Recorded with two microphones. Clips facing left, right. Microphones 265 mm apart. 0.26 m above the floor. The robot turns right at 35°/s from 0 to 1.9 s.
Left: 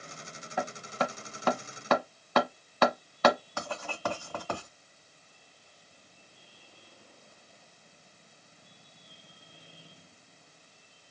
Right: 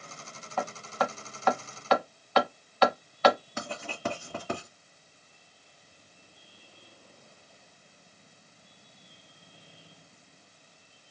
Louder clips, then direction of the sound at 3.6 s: Right 1 dB; 20° right (ahead or behind).